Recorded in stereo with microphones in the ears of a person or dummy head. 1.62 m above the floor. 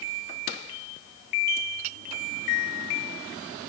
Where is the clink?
35° right (ahead or behind).